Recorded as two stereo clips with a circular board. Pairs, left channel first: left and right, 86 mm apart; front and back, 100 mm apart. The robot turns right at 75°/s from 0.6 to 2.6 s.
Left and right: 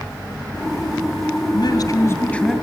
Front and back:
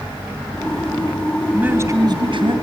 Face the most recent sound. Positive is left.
turn(degrees=-175)